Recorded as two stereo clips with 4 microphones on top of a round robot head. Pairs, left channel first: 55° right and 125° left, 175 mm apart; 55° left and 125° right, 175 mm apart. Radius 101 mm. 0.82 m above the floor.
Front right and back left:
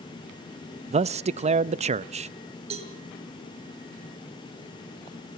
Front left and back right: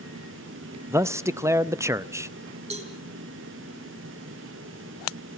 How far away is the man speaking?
About 0.6 m.